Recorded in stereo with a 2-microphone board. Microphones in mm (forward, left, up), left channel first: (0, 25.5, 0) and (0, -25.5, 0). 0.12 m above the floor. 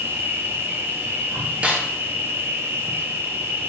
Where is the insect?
55° right (ahead or behind), 0.9 m.